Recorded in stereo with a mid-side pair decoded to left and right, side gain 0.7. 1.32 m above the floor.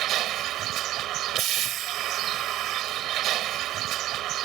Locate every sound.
0.0 s a vehicle: 50° right